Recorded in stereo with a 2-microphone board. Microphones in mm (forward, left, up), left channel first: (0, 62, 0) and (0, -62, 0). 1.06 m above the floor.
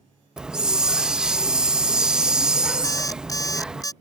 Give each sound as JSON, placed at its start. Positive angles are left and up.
{"t": 0.4, "sound": "a hiss", "side_deg": -5}
{"t": 2.8, "sound": "an alarm clock", "side_deg": 30}